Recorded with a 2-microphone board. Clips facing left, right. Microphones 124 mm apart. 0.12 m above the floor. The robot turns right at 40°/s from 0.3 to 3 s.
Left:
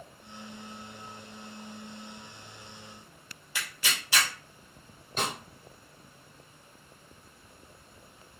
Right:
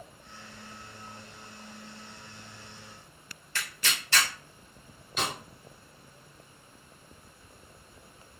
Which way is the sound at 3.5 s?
10° left (ahead or behind).